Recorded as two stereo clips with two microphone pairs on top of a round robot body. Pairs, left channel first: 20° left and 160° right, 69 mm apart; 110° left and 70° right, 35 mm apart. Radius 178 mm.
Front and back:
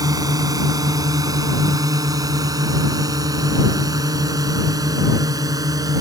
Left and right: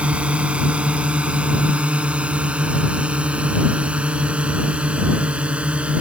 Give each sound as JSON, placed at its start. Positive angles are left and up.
{"t": 0.0, "sound": "a drone", "azimuth_deg": -130}